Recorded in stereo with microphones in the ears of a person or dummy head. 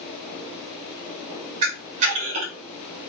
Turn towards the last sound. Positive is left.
turn(degrees=-35)  # may be behind; listen again after turning